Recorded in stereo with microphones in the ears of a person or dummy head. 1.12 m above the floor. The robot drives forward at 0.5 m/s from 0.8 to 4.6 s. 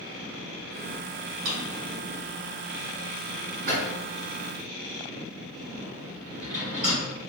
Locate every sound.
1.4 s a drawer: 85° right, 1.4 m; by 7.0 s 40° right (ahead or behind), 2 m